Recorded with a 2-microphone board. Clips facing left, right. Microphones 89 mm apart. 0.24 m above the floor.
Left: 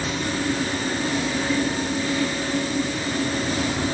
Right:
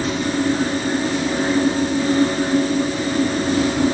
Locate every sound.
Only background noise.